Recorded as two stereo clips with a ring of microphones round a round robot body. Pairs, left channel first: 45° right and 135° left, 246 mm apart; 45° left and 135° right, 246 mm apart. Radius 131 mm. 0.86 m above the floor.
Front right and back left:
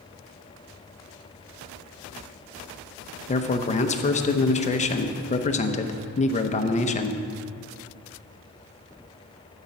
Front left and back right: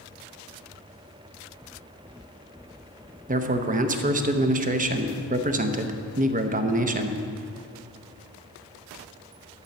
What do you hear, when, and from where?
3.3 s a man speaking: 95° right, 0.8 m